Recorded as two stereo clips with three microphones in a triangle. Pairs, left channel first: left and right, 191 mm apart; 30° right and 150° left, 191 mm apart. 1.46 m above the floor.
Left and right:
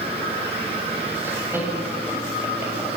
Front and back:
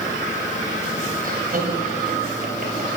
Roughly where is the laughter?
Behind.